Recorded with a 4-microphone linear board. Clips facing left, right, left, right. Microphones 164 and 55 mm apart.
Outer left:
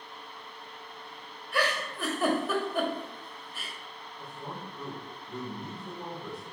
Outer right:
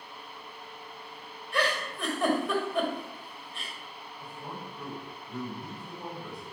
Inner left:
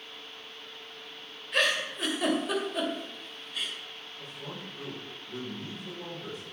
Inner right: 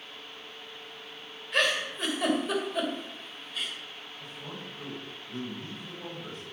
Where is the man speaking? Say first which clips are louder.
Outer left 1 dB, inner left 1 dB; 25° left (ahead or behind), 5 m.